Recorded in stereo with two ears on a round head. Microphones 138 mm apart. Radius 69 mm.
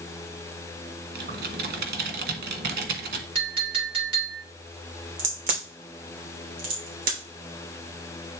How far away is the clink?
About 3 m.